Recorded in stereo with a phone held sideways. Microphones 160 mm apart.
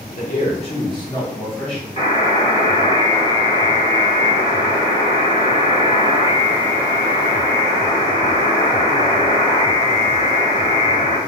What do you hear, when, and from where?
0.2 s a man speaking: 55° left (ahead or behind), 1.0 m; by 1.9 s 5° left (ahead or behind), 1.2 m
2.0 s a buzzer: 45° left (ahead or behind), 1.6 m